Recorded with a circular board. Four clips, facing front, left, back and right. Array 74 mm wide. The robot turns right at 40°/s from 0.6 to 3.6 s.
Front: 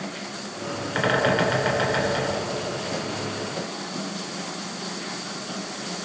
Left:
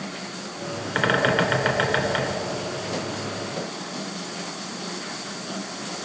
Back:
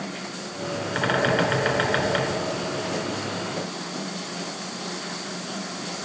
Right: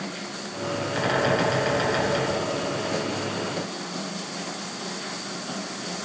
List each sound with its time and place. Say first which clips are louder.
0.9 s a bird: left 3 dB, front 1 dB; 80° left, 2.0 m; by 2.3 s 135° left, 2.0 m